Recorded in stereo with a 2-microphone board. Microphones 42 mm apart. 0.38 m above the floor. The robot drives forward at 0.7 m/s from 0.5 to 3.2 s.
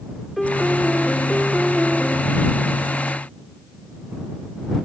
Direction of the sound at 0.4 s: Centre (ahead or behind).